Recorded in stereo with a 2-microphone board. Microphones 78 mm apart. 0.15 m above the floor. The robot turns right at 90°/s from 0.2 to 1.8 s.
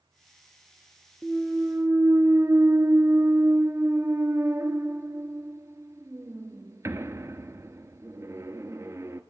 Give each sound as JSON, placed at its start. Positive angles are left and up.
{"t": 1.2, "sound": "a clunk", "azimuth_deg": 170, "distance_m": 0.8}